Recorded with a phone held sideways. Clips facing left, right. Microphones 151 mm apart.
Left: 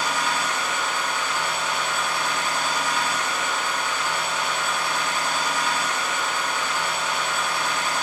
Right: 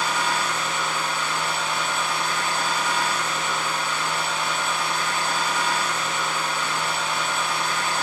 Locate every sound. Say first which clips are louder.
0.0 s a machine running: right 1 dB; 30° right (ahead or behind), 0.9 m